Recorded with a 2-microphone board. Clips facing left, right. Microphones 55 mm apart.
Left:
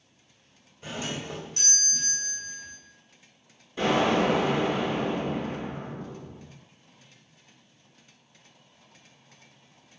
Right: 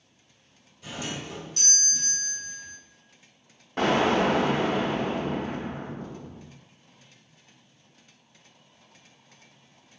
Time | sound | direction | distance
0.8 | a doorbell | 35° left (ahead or behind) | 1.5 m
3.8 | an explosion | 70° right (ahead or behind) | 1.5 m